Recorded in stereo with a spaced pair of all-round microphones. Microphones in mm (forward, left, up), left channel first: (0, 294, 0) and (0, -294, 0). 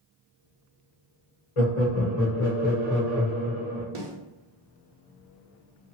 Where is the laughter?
60° left (ahead or behind), 0.8 m; by 3.9 s 25° right (ahead or behind), 0.9 m.